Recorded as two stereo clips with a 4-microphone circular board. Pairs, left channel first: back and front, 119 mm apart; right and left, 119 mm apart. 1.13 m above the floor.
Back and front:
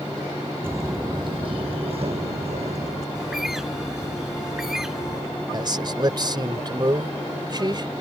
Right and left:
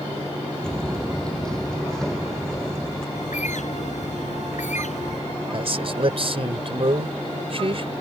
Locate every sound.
0.6 s footsteps: 15° right; by 3.0 s 5° right
3.1 s a bird: 85° right
5.5 s a man speaking: 50° left